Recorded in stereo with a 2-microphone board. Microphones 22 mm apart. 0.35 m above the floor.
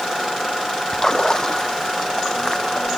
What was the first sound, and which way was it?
A splash, 30° left (ahead or behind).